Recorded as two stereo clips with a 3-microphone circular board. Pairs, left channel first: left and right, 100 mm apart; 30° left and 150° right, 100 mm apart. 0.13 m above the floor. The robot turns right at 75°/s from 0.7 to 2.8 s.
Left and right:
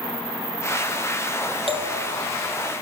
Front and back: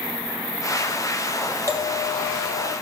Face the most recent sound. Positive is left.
turn(degrees=-10)